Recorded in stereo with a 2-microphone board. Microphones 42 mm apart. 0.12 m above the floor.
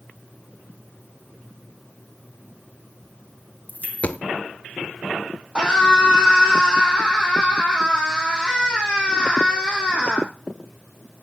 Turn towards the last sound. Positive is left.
turn(degrees=-15)  # may be behind; listen again after turning